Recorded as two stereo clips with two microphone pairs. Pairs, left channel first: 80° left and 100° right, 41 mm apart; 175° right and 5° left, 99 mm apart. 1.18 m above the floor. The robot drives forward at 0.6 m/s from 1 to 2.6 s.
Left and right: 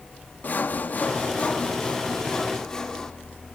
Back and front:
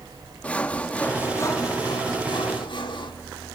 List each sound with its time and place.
0.4 s sawing: 110° left, 0.7 m; by 3.1 s 155° left, 1.3 m